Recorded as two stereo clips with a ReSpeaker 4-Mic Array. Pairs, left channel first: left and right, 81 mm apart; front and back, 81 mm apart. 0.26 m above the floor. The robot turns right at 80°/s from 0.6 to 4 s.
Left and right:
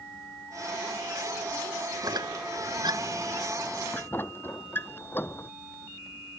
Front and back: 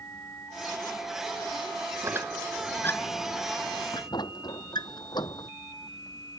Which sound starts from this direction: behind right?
A squeak, at 2.0 s.